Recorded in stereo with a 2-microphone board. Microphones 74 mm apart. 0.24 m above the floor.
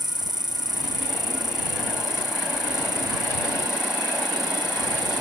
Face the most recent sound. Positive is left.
turn(degrees=-70)  # may be behind; listen again after turning